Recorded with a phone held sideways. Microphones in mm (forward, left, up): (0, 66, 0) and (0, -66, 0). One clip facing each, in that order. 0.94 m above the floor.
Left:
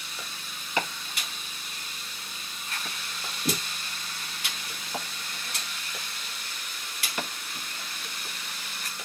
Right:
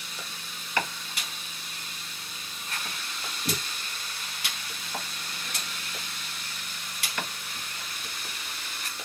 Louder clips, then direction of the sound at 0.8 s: Even; 20° left (ahead or behind).